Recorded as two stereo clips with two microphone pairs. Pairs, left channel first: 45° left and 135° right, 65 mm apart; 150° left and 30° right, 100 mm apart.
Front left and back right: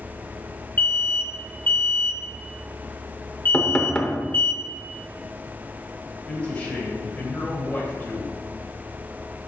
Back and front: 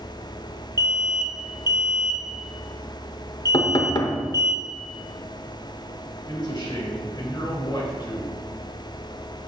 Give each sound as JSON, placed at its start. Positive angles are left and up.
{"t": 0.8, "sound": "an alarm", "azimuth_deg": 10, "distance_m": 0.8}
{"t": 3.5, "sound": "knocking", "azimuth_deg": 120, "distance_m": 0.8}
{"t": 6.3, "sound": "a man speaking", "azimuth_deg": 115, "distance_m": 2.5}